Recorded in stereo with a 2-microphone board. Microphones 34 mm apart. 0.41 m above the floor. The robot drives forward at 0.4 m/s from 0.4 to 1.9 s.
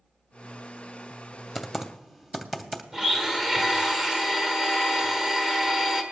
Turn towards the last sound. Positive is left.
turn(degrees=-20)  # may be behind; listen again after turning